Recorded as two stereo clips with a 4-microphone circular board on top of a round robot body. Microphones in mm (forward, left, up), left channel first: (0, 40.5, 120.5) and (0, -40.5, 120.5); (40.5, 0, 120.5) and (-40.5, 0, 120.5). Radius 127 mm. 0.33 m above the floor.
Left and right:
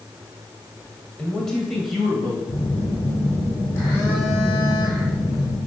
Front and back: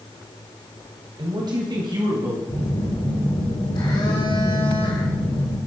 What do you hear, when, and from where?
1.2 s a man speaking: 165° left, 2.5 m; by 2.4 s 175° right, 3 m
2.5 s a phone buzzing: 30° left, 4 m